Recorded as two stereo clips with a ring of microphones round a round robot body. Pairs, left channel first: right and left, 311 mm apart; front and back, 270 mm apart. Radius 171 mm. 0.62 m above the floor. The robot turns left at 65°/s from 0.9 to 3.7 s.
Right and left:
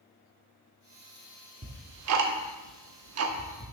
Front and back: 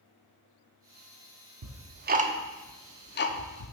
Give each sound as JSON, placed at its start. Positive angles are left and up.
{"t": 1.6, "sound": "ticking", "azimuth_deg": 155, "distance_m": 0.7}